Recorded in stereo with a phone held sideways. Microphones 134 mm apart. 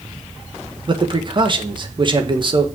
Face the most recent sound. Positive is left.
turn(degrees=-35)  # may be behind; listen again after turning